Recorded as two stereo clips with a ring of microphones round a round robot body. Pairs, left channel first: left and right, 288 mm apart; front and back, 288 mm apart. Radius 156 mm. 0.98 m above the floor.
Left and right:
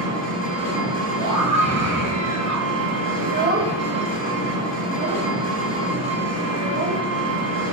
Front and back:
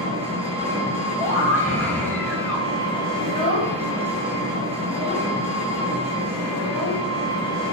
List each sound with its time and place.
0.0 s an engine running: 110° right, 1.5 m
1.2 s a scream: 80° right, 1.1 m
3.2 s a child speaking: 30° right, 1.0 m